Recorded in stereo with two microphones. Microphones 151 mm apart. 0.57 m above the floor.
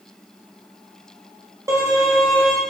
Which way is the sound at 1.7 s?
20° right (ahead or behind).